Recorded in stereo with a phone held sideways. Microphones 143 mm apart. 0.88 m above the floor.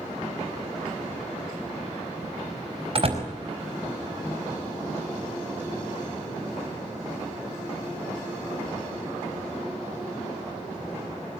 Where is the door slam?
45° right (ahead or behind), 4.5 m.